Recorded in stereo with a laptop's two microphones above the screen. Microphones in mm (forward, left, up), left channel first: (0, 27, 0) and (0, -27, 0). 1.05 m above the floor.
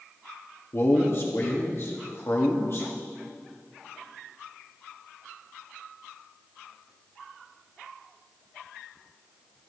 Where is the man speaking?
50° left (ahead or behind), 1.9 m.